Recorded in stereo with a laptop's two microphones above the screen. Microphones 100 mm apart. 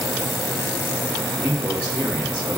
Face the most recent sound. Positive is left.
turn(degrees=-15)  # may be behind; listen again after turning